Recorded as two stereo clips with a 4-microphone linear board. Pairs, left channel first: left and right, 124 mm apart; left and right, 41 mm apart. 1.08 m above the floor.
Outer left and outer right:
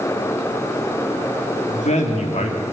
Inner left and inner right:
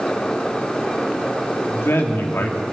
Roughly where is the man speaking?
Left.